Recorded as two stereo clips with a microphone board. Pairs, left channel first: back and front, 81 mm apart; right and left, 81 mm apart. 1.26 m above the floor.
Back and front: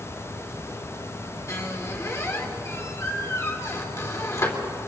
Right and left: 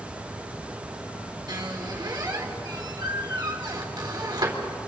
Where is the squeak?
125° left, 2.5 m.